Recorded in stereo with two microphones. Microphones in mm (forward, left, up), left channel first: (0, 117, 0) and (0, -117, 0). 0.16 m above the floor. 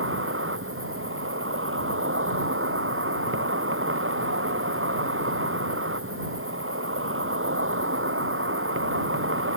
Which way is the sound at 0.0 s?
65° right (ahead or behind).